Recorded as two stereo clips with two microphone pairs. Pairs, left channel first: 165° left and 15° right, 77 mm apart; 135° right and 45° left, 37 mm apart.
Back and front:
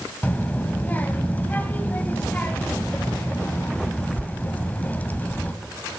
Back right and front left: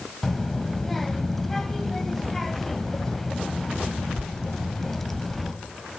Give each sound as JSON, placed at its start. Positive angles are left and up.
{"t": 0.2, "sound": "a child speaking", "azimuth_deg": 160, "distance_m": 1.1}